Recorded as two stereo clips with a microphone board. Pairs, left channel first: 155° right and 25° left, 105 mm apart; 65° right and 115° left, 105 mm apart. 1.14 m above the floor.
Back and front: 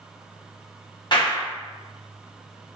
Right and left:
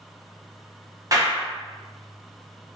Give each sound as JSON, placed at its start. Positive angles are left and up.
{"t": 1.1, "sound": "a clap", "azimuth_deg": 165, "distance_m": 0.7}